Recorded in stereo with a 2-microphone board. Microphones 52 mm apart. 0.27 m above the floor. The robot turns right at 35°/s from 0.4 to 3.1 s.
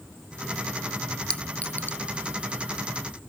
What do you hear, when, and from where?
1.3 s a clink: 20° left (ahead or behind); by 2.0 s 45° left (ahead or behind)